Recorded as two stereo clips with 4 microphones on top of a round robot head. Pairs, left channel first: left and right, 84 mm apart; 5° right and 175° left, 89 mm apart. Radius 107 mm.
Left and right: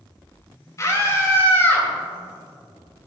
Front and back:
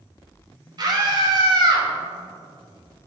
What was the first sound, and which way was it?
A scream, 140° left.